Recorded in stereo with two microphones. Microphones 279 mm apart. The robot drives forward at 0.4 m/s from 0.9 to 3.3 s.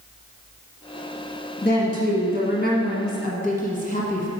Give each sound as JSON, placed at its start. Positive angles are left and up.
{"t": 1.6, "sound": "a woman speaking", "side_deg": 35, "distance_m": 1.3}